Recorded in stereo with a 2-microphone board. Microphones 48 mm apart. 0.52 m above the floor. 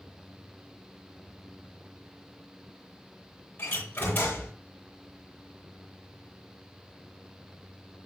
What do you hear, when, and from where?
3.6 s a door slam: 35° left (ahead or behind), 9.5 m